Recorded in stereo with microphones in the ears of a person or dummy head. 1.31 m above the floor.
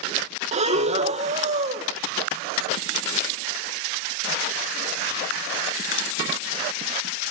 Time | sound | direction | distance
0.5 | breathing | 30° right (ahead or behind) | 1.2 m